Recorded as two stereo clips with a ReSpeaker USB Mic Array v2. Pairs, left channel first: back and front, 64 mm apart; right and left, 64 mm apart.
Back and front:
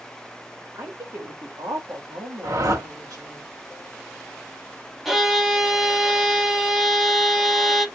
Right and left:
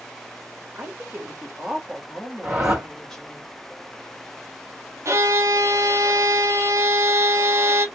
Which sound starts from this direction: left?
A violin, at 5.0 s.